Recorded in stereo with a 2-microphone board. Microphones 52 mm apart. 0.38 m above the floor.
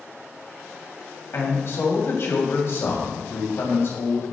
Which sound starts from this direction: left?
A man speaking, at 1.3 s.